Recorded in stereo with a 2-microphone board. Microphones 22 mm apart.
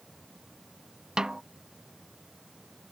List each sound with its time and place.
1.2 s a snare drum: 30° right (ahead or behind)